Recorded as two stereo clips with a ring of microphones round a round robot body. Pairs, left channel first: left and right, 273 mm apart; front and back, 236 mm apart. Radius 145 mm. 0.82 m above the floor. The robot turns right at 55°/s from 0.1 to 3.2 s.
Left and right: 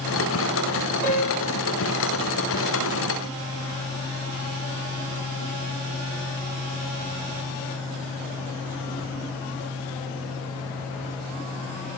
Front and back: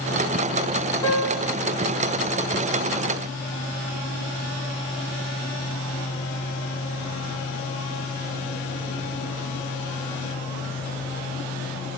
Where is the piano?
75° left, 2 m; by 1.6 s 105° left, 2 m.